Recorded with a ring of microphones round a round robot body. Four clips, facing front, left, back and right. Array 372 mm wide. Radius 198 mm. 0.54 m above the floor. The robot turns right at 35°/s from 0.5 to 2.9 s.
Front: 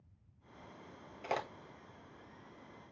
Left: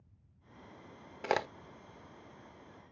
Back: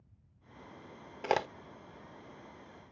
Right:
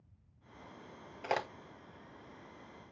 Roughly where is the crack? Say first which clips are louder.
Left 3 dB, back 7 dB; behind left.